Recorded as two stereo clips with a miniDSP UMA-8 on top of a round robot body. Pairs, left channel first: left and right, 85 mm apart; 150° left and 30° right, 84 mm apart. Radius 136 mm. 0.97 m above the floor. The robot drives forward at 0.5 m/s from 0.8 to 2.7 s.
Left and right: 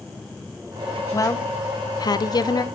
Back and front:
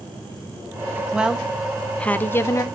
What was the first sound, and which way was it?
A woman speaking, 45° left.